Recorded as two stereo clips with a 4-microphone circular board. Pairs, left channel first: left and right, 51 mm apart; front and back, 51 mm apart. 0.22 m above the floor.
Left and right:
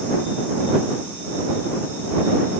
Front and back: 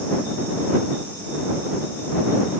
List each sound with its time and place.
Only background noise.